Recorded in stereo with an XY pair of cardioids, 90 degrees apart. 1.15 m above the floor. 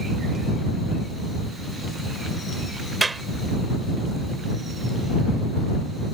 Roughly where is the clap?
Ahead right.